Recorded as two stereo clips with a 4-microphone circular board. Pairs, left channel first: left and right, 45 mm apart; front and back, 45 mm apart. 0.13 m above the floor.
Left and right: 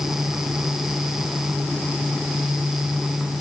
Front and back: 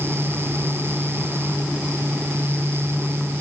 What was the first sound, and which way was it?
Only background noise.